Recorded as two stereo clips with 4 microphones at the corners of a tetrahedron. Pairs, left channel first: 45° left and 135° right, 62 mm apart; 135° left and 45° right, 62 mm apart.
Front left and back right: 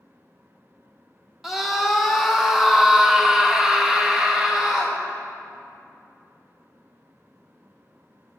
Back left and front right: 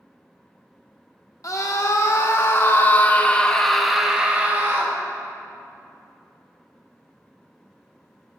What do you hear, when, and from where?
1.4 s a scream: 140° left, 1.9 m; by 5.0 s 60° right, 1.2 m